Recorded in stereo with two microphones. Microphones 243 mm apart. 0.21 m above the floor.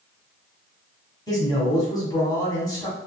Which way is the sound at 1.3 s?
15° left (ahead or behind).